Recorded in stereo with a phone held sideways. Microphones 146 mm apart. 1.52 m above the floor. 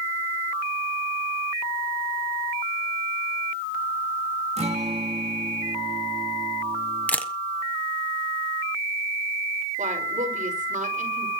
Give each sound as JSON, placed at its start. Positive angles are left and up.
{"t": 4.6, "sound": "a guitar", "side_deg": -45, "distance_m": 2.5}
{"t": 7.1, "sound": "a camera shutter", "side_deg": 10, "distance_m": 1.1}
{"t": 9.8, "sound": "a woman speaking", "side_deg": -55, "distance_m": 5.5}